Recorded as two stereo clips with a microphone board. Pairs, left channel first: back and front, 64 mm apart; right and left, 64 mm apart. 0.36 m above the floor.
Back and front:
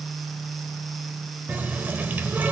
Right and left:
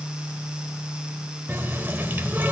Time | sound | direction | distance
1.5 | a running tap | 45° left | 0.8 m